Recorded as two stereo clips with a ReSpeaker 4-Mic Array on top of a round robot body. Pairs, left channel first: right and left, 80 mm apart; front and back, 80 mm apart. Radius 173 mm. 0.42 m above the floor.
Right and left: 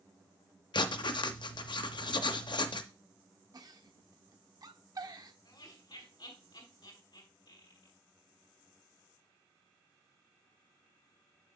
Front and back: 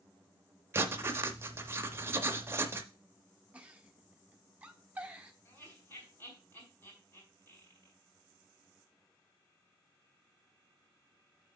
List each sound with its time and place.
0.7 s writing: 120° right, 0.6 m
3.5 s a giggle: 110° left, 1.2 m
5.5 s laughter: 60° right, 4.5 m